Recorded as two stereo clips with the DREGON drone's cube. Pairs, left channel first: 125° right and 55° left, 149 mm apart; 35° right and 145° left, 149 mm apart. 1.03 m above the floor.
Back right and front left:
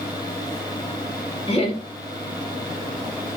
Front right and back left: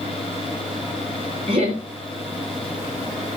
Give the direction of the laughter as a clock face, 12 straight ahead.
6 o'clock.